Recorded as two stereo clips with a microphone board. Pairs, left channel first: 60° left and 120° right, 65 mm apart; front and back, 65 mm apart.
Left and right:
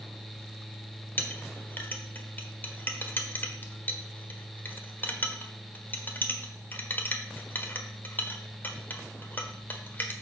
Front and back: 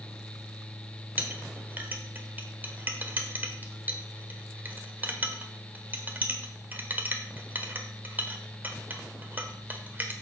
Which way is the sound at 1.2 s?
120° left.